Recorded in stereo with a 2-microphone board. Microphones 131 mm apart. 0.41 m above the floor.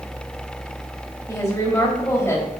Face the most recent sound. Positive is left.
turn(degrees=20)  # may be behind; listen again after turning